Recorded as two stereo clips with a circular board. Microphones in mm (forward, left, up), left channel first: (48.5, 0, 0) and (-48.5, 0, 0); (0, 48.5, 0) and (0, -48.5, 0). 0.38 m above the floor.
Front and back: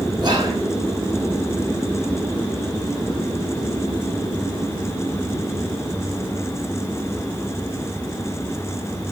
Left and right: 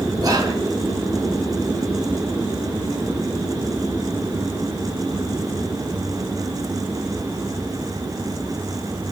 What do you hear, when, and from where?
0.2 s whispering: 140° right, 4 m